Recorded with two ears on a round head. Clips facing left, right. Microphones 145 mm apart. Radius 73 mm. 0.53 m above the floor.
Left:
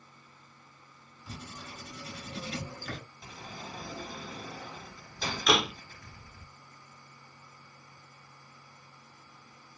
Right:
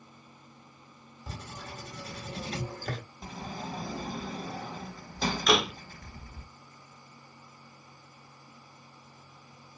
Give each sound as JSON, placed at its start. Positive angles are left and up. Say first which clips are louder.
{"t": 1.3, "sound": "writing", "louder": "right 2 dB", "side_deg": -35, "distance_m": 1.7}
{"t": 3.2, "sound": "a sliding door", "louder": "right 6 dB", "side_deg": -35, "distance_m": 0.7}
{"t": 5.5, "sound": "a door slam", "louder": "right 1 dB", "side_deg": 0, "distance_m": 0.7}